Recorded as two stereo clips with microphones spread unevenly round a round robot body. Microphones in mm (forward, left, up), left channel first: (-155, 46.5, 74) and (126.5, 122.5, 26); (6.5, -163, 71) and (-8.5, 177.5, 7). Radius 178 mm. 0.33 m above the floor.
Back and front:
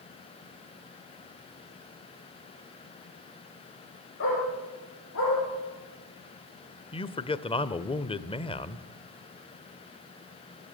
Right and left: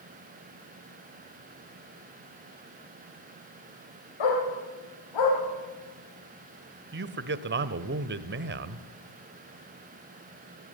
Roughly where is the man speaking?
Behind left.